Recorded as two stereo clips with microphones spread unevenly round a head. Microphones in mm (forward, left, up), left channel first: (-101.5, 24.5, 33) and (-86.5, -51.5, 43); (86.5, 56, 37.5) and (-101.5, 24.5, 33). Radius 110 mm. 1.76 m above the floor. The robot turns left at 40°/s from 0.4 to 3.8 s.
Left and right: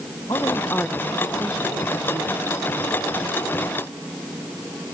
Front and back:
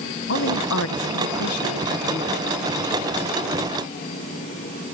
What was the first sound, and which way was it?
A woman speaking, 30° left.